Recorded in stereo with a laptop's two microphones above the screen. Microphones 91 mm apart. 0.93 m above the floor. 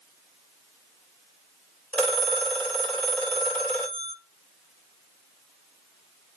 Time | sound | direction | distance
1.9 | a phone ringing | 15° left (ahead or behind) | 3 m